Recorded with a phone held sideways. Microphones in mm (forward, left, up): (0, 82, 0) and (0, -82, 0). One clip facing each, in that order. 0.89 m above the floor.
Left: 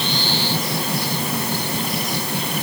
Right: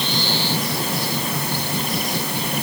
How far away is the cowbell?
No cowbell in this recording.